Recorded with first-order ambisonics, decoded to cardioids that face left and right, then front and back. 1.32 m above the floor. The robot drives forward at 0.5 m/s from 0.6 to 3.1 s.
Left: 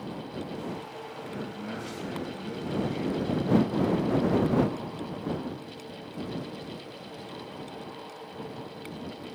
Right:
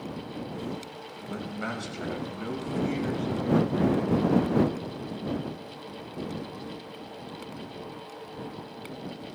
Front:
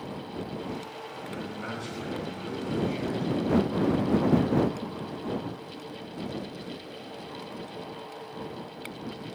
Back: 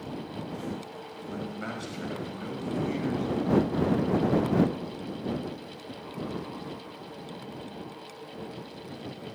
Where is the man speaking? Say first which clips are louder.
Right 6 dB, back 2 dB; 110° right, 6 m; by 4.2 s 115° right, 6 m.